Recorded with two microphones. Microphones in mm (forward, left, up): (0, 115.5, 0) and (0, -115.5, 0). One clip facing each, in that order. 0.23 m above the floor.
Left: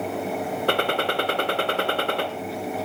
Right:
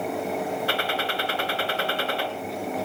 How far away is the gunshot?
About 1.1 m.